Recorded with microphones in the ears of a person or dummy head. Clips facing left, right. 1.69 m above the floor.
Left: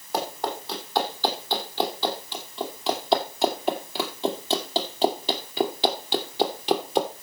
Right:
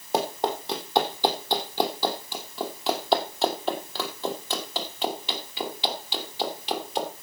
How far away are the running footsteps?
About 4 m.